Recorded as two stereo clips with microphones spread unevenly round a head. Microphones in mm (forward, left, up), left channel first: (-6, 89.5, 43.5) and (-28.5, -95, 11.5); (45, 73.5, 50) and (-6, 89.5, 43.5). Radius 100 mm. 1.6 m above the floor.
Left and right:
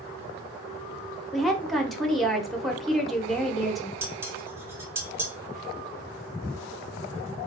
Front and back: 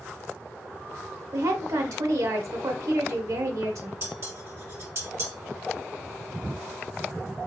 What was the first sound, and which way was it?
A woman speaking, 165° left.